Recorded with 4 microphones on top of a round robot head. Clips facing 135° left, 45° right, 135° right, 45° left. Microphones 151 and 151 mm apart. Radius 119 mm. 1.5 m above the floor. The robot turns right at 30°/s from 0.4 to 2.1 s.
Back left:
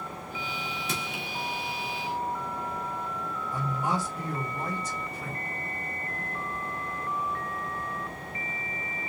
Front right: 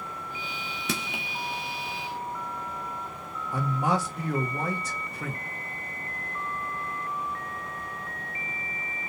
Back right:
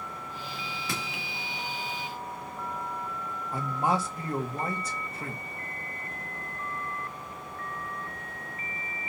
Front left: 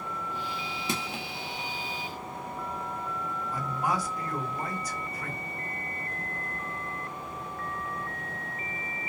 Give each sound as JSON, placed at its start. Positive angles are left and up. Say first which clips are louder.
{"t": 0.9, "sound": "crushing", "louder": "front right 6 dB, front left 4 dB", "azimuth_deg": -20, "distance_m": 1.2}
{"t": 3.5, "sound": "a man speaking", "louder": "front right 4 dB, back right 3 dB", "azimuth_deg": -70, "distance_m": 1.9}